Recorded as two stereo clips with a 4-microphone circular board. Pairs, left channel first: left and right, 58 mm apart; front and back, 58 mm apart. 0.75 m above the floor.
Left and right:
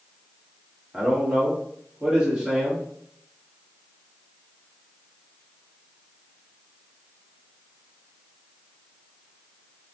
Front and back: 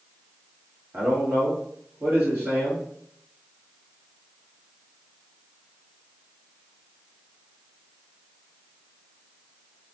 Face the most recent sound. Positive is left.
turn(degrees=-160)